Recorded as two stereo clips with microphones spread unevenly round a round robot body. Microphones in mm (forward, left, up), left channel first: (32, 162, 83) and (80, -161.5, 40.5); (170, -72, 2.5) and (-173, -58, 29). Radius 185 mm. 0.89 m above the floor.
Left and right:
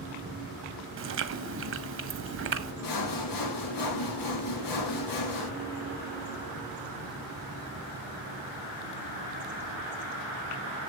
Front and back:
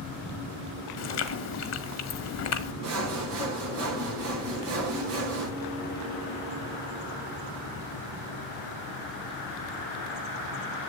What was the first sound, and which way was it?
Chewing, 40° right.